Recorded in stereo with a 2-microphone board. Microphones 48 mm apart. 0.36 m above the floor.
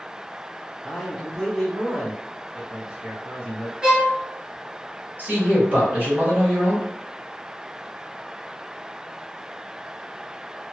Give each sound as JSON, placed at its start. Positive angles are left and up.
{"t": 0.8, "sound": "a man speaking", "side_deg": 10, "distance_m": 1.3}
{"t": 3.8, "sound": "a violin", "side_deg": -20, "distance_m": 1.0}
{"t": 5.2, "sound": "a woman speaking", "side_deg": -40, "distance_m": 1.3}